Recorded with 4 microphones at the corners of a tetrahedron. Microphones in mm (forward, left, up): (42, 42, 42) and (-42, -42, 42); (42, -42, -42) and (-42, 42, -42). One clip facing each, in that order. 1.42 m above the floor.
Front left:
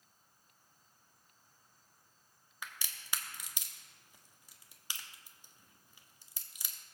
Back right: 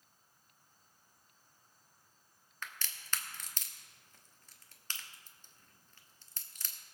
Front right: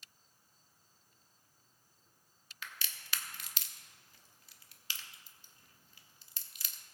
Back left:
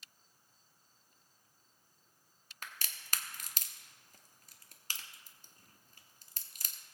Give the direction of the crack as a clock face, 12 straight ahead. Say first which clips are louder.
Back right 1 dB, even; 8 o'clock.